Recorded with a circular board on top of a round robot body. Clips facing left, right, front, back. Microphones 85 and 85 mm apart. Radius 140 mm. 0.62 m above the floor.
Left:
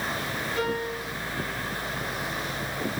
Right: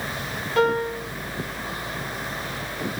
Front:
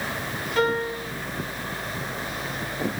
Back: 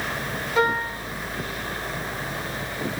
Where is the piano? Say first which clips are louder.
Right 10 dB, back 1 dB; 100° right, 5 m.